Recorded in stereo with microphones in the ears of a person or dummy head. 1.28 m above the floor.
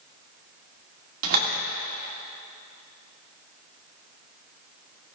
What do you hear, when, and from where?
1.2 s a door slam: 50° right (ahead or behind), 2 m